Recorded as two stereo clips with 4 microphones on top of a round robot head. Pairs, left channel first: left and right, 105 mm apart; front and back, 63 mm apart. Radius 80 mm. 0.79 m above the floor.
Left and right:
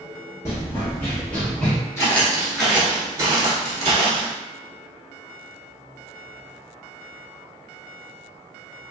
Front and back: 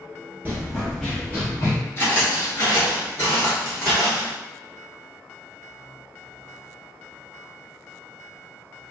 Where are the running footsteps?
145° left, 0.8 m; by 1.8 s 10° left, 0.9 m.